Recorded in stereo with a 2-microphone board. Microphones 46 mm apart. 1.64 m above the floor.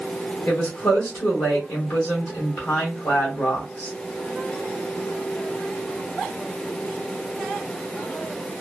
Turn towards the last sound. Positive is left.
turn(degrees=70)  # may be behind; listen again after turning